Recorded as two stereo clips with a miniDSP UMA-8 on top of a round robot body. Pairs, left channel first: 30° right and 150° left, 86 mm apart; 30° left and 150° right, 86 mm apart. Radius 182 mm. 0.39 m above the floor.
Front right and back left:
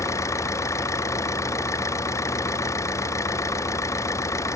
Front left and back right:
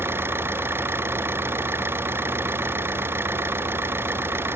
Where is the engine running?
85° right.